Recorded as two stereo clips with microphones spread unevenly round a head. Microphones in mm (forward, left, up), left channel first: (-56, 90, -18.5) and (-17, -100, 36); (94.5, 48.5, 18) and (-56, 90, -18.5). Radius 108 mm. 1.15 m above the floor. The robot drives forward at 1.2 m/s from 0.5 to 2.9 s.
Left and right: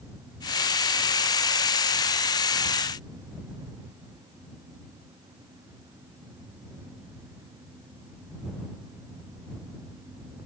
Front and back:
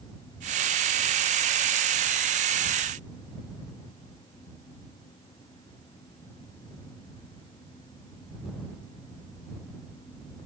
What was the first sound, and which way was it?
Only background noise.